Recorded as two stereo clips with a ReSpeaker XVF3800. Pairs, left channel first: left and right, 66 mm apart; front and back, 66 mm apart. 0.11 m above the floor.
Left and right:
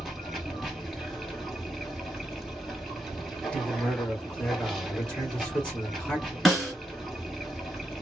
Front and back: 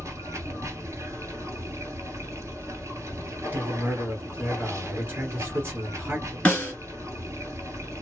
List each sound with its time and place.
0.0 s running water: 175° left, 1.4 m
3.5 s a man speaking: 150° left, 2 m
6.5 s a snare drum: 5° right, 1.7 m